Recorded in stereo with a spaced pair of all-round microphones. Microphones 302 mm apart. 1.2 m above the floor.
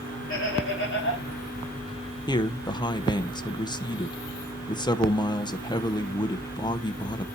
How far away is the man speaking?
About 0.7 m.